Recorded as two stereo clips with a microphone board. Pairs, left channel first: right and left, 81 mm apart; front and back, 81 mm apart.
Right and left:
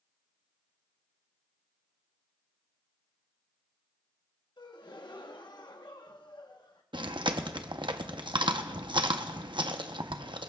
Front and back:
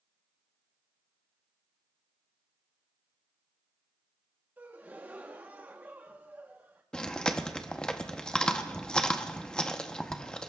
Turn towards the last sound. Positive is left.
turn(degrees=80)